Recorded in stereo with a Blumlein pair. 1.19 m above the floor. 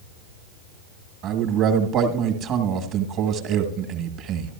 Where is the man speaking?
35° right, 1.4 m.